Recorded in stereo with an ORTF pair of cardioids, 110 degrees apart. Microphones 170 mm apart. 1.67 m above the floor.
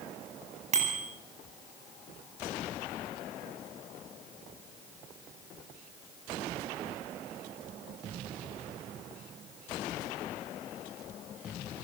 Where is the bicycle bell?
40° right, 9 m.